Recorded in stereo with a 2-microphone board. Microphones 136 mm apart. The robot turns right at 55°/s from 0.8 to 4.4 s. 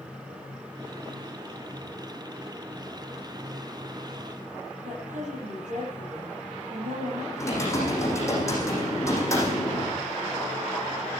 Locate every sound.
4.8 s a woman speaking: 65° right (ahead or behind), 9 m
7.4 s typing on a keyboard: 20° left (ahead or behind), 9 m